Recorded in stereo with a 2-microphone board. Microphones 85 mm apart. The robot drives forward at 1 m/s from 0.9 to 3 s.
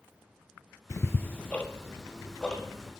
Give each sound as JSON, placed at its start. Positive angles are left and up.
{"t": 0.9, "sound": "ticking", "side_deg": 35, "distance_m": 0.5}